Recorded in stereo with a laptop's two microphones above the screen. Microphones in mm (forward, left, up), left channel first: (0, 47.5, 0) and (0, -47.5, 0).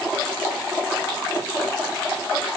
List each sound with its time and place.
Only background noise.